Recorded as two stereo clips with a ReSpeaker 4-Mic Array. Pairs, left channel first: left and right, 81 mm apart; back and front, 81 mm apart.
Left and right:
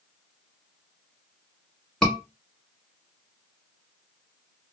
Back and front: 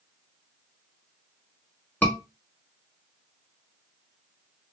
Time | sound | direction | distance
2.0 | a scream | 155° left | 1.1 m